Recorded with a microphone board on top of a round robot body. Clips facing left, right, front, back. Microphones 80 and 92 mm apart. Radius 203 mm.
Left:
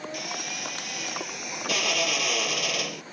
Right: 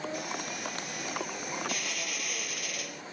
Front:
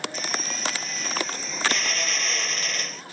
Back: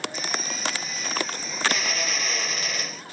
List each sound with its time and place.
0.1 s a drill: 95° left